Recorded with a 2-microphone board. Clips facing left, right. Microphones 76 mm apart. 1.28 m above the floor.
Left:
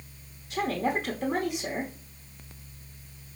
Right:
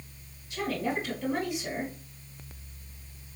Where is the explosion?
I don't hear an explosion.